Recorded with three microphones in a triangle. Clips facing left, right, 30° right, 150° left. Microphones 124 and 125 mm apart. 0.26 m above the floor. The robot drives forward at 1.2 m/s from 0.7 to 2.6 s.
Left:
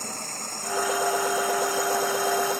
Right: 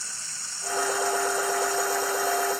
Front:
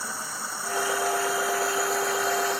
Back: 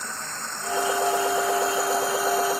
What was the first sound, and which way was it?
Running water, 55° left.